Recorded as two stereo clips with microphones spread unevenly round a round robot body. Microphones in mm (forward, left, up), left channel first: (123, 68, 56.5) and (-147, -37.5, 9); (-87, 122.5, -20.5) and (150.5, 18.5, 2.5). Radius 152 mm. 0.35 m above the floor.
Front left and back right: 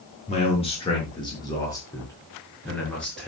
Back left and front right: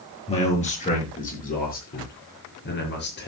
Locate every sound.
0.3 s a man speaking: 90° left, 6 m; by 3.3 s 110° left, 6.5 m